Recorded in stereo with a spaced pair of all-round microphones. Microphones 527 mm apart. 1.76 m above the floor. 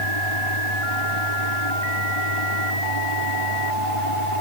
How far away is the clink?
No clink in this recording.